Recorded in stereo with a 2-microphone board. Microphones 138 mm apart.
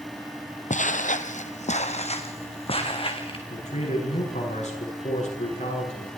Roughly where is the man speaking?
Left.